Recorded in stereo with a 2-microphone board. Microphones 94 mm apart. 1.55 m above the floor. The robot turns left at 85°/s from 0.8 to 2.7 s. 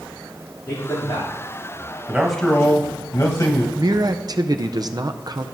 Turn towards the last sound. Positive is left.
turn(degrees=-45)  # may be behind; listen again after turning